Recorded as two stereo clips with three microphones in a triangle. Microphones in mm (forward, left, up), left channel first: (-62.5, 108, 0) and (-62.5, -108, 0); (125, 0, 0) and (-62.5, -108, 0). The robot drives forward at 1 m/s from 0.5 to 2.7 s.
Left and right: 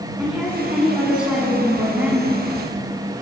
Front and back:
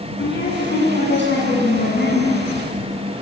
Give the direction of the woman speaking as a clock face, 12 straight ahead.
12 o'clock.